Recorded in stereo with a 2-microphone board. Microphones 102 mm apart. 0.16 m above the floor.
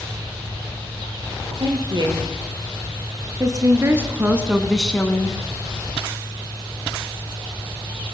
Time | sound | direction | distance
1.6 | a woman speaking | 50° right (ahead or behind) | 5.5 m